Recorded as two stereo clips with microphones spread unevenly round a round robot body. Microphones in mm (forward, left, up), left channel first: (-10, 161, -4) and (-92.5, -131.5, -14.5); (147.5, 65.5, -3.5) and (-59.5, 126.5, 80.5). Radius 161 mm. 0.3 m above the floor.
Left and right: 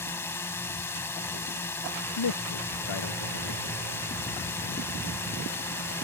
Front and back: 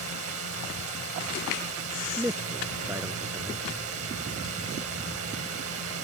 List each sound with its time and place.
0.0 s a drone: 155° left
2.2 s a man speaking: 85° left